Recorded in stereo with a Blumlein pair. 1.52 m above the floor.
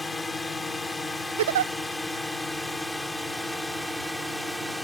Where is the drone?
10° left; by 4.8 s straight ahead.